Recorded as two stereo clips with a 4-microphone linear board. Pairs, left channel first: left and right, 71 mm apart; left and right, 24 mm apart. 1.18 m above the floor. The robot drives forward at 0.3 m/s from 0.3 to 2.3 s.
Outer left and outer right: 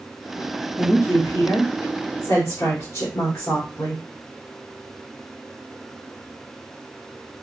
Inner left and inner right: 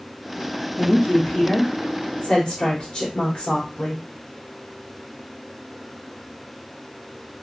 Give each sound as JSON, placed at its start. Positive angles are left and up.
{"t": 0.8, "sound": "a woman speaking", "side_deg": 60, "distance_m": 1.5}